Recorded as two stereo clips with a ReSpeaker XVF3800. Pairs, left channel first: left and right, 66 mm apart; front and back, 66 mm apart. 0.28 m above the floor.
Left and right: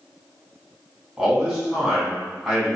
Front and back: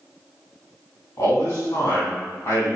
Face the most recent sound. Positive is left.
turn(degrees=-5)